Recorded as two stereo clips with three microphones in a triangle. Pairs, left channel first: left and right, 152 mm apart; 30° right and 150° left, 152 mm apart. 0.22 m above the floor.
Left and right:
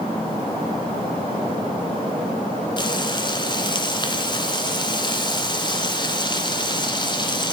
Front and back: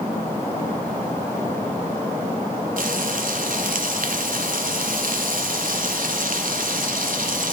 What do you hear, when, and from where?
2.8 s frying: 145° left, 1.1 m